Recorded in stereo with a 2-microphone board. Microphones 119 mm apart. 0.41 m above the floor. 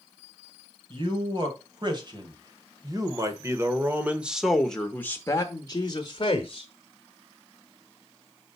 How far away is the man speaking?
About 2.5 m.